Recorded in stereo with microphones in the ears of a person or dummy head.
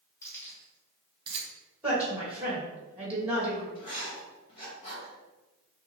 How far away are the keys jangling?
About 1.4 m.